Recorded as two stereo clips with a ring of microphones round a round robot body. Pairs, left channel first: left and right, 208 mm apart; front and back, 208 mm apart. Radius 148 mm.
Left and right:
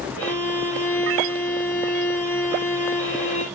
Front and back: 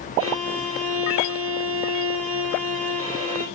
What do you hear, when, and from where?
0.2 s a violin: 135° left, 6 m